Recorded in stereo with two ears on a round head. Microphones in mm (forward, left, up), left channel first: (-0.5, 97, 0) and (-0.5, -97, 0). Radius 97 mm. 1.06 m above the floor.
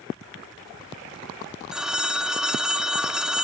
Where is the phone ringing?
5° right (ahead or behind).